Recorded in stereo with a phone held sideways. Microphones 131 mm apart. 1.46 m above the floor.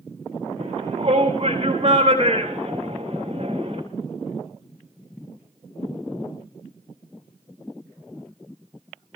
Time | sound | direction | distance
0.6 | a shout | 45° right (ahead or behind) | 6 m